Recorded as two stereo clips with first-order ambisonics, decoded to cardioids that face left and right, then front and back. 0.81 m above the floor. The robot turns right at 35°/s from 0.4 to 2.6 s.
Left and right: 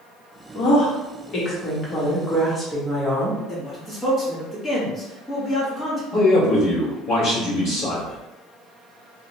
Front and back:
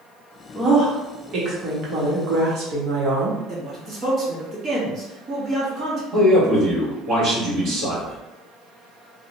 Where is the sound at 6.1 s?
130° left, 1.4 m.